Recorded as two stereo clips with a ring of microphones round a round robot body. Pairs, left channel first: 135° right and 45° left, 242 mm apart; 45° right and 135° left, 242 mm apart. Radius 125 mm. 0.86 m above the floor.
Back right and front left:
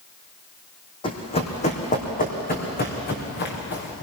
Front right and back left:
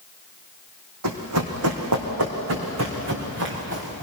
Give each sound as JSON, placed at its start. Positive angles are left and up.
{"t": 1.0, "sound": "running footsteps", "azimuth_deg": 155, "distance_m": 2.5}